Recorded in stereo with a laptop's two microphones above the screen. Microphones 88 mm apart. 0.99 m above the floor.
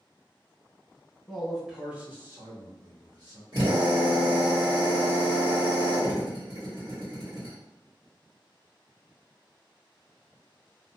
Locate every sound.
1.3 s a man speaking: 10° left (ahead or behind), 0.9 m; by 3.4 s 45° right (ahead or behind), 1.4 m
3.5 s a drill: 65° right (ahead or behind), 1.5 m